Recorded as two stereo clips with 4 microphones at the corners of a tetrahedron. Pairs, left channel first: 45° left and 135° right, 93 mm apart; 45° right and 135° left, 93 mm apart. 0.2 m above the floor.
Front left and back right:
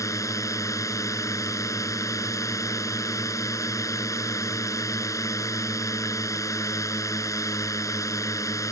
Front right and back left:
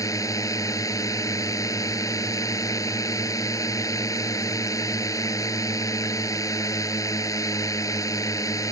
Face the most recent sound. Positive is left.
turn(degrees=0)